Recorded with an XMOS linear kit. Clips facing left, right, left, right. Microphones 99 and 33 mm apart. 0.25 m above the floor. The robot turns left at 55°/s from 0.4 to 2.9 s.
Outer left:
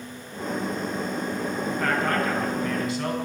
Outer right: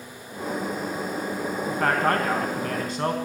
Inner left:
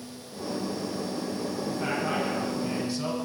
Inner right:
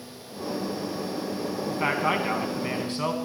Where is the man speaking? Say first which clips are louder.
Outer right 3 dB, inner right 5 dB; 55° right, 2 m; by 3.1 s 120° right, 2 m.